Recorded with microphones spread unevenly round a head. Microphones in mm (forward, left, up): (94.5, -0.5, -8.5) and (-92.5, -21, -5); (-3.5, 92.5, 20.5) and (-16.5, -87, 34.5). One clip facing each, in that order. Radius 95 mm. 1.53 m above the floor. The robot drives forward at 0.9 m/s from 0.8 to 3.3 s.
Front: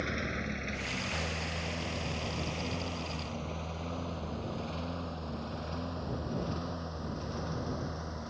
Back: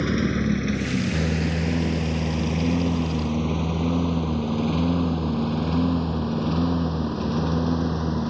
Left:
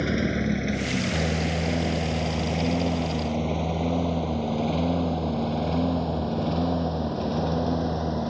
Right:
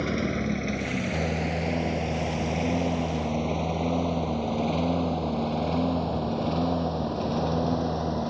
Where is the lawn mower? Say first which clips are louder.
Back 14 dB, left 2 dB; 170° left; by 8.3 s 175° left.